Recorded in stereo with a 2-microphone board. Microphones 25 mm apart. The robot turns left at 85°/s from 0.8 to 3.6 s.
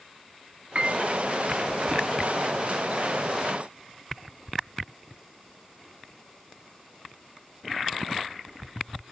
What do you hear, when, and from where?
0.8 s a piano: 45° right (ahead or behind), 0.8 m; by 1.1 s 55° right (ahead or behind), 0.8 m